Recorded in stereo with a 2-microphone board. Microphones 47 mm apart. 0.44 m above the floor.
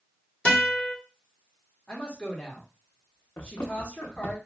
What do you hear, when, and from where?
0.5 s a guitar: 25° left (ahead or behind), 1.2 m
1.9 s a woman speaking: 20° left (ahead or behind), 1.0 m
3.4 s running footsteps: 65° left (ahead or behind), 1.0 m